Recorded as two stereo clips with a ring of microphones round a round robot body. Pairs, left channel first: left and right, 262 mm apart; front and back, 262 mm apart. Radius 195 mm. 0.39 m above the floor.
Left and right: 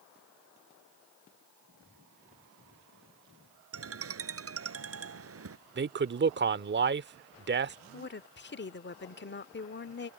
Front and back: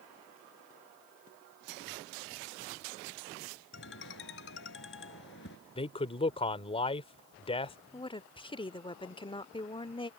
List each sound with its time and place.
3.7 s a ringtone: 60° right
5.8 s a man speaking: 60° right
7.9 s a woman speaking: 65° left